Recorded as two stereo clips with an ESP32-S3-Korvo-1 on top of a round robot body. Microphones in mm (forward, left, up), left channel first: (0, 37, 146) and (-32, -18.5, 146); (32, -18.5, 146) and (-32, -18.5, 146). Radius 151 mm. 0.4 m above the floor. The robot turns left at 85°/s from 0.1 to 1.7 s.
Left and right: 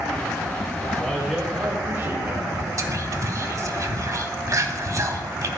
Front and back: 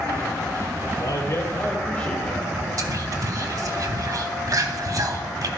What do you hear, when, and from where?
1.0 s a man speaking: 5° right, 2.5 m; by 2.5 s 65° right, 2.5 m
2.8 s whispering: 155° right, 1.8 m